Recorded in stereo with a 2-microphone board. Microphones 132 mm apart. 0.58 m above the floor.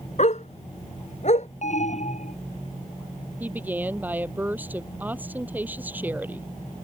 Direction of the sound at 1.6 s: 65° left (ahead or behind).